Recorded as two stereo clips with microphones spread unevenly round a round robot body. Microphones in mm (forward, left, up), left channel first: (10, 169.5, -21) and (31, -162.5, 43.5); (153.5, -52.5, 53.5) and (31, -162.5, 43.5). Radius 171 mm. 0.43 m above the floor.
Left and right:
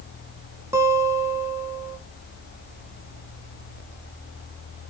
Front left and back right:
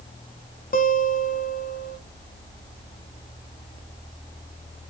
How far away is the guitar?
About 1.8 m.